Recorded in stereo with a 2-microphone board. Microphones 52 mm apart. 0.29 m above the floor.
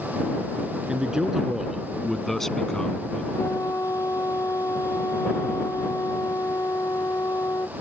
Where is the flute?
85° left.